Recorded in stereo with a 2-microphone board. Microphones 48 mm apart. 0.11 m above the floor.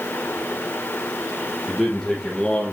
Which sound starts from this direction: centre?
A man speaking, at 1.7 s.